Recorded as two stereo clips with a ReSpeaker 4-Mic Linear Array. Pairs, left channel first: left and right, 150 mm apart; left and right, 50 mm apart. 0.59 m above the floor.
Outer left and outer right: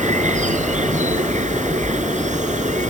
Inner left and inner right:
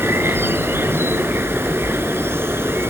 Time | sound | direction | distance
0.0 | an insect | 55° right (ahead or behind) | ?